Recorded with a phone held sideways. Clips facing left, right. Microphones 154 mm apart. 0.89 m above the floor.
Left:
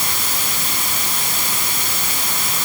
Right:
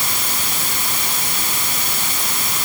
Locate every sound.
Only background noise.